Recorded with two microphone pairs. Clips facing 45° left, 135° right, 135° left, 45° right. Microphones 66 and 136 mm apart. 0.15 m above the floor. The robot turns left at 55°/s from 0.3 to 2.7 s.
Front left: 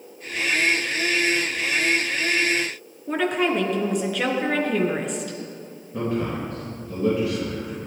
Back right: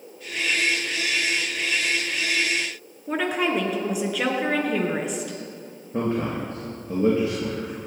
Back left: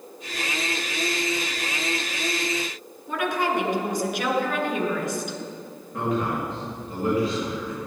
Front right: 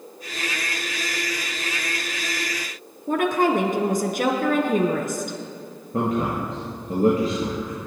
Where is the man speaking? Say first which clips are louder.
Back right 1 dB, front right 2 dB; 80° right, 3 m.